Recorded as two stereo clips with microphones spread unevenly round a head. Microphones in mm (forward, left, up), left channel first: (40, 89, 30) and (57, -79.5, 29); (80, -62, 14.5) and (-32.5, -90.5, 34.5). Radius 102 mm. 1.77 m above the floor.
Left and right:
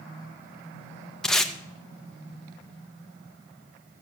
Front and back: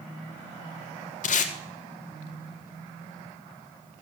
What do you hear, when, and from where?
1.2 s tape being pulled: 10° left, 1.4 m